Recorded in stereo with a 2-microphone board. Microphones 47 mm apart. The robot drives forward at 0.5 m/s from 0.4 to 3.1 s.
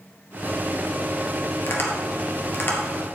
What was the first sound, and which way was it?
Tapping, 55° left (ahead or behind).